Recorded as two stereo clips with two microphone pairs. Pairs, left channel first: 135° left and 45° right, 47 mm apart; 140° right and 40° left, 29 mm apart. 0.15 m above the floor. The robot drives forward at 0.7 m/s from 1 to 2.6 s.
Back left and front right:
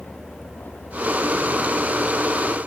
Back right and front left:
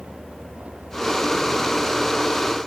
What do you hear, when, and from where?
0.0 s a vehicle: 85° left; by 2.7 s 90° left